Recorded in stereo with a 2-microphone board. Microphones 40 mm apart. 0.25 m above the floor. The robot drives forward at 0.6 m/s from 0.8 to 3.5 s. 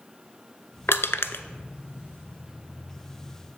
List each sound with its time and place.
0.9 s crushing: 80° left, 0.6 m; by 1.4 s 70° left (ahead or behind), 0.6 m